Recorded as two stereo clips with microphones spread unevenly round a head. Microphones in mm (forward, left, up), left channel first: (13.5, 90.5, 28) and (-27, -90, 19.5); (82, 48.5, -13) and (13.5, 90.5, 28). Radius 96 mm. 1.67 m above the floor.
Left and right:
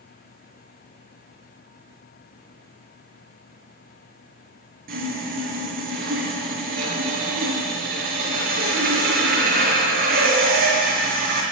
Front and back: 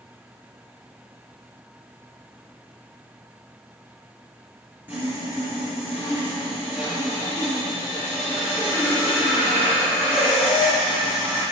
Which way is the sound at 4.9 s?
145° right.